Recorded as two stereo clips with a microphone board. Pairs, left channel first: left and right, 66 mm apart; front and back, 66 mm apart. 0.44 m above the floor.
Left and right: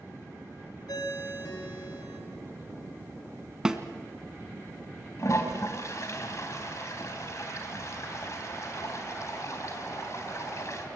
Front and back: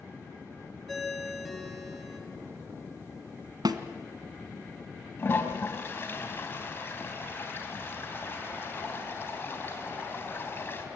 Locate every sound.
0.9 s a ringtone: 90° left, 4.5 m
3.6 s a snare drum: 170° right, 1.5 m
5.2 s a toilet flushing: 55° left, 3.5 m